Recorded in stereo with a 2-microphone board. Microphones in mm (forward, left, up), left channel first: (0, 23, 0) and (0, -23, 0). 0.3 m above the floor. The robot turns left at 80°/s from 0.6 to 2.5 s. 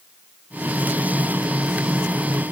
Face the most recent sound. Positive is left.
No sound to turn to.